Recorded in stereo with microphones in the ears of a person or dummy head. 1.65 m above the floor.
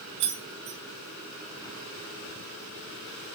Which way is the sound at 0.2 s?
60° right (ahead or behind).